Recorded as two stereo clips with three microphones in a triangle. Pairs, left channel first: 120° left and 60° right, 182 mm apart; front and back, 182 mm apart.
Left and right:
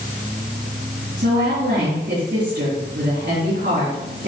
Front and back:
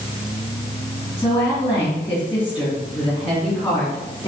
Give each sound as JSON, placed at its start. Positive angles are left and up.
{"t": 1.2, "sound": "a woman speaking", "azimuth_deg": -70, "distance_m": 3.5}